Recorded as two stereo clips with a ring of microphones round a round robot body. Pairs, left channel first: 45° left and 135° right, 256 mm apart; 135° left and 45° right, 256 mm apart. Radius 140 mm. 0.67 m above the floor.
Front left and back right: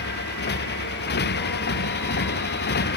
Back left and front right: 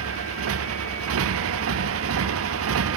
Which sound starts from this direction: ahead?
A motorcycle, at 0.0 s.